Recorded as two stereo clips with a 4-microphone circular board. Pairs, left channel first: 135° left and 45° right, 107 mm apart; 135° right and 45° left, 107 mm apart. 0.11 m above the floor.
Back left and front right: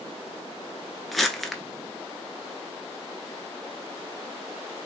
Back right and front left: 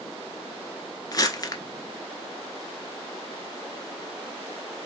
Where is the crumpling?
135° right, 0.6 m.